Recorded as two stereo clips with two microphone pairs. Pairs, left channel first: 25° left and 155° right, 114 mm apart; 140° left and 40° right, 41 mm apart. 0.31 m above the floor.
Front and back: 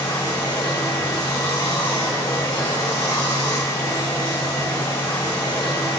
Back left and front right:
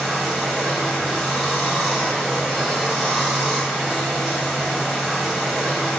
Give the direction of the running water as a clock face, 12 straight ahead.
10 o'clock.